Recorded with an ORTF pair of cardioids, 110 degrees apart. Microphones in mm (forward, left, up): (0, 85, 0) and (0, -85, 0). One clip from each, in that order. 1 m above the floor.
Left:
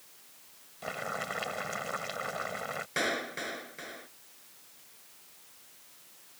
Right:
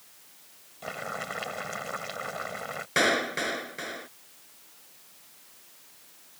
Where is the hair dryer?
No hair dryer in this recording.